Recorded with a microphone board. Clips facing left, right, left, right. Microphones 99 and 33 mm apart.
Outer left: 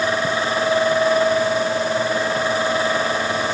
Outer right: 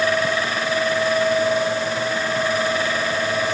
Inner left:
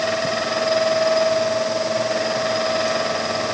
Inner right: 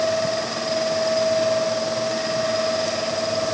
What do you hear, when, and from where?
Only background noise.